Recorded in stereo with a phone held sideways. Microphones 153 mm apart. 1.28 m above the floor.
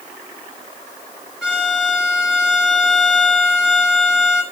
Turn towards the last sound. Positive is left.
turn(degrees=-5)  # may be behind; listen again after turning